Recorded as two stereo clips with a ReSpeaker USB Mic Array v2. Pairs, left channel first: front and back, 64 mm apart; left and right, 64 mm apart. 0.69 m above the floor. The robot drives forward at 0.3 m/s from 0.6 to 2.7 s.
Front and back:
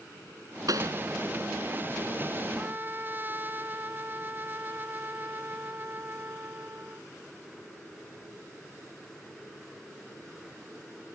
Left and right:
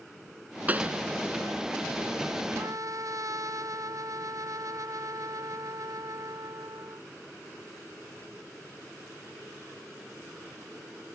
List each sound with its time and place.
0.7 s a pop: 155° right
2.6 s a trumpet: 120° right